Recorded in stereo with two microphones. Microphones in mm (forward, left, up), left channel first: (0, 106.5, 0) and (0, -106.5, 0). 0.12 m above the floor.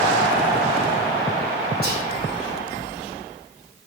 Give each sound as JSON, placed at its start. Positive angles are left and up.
{"t": 1.8, "sound": "whispering", "side_deg": -50, "distance_m": 3.0}